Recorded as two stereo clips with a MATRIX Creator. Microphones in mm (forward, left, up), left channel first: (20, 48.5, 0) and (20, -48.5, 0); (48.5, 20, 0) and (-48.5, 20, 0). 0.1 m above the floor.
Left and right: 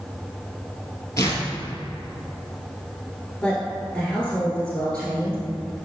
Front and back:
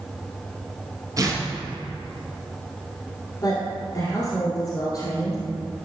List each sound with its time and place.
1.2 s tearing paper: 140° left, 1.5 m
3.4 s a woman speaking: 15° left, 1.4 m